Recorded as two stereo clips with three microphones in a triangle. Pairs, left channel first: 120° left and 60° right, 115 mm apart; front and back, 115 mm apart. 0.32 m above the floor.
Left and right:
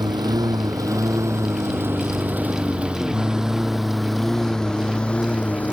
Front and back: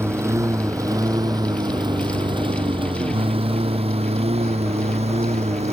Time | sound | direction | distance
0.0 | a lawn mower | 115° right | ?